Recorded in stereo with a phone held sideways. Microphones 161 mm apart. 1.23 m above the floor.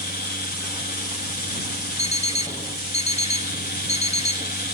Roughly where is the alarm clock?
Left.